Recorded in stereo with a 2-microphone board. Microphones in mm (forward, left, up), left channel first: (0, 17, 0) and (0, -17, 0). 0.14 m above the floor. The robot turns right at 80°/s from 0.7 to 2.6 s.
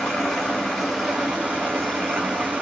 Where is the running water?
165° left, 1.3 m; by 2.6 s 45° right, 1.3 m.